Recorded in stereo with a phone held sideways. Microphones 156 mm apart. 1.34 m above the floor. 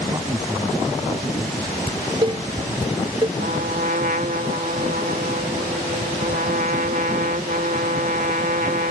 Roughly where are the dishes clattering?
Right.